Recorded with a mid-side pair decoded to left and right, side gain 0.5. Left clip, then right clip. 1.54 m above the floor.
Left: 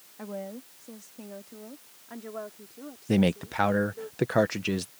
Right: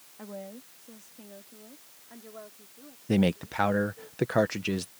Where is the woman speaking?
25° left; by 4.1 s 55° left.